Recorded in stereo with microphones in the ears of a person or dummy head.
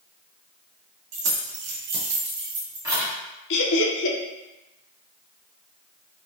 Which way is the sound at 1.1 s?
75° right (ahead or behind).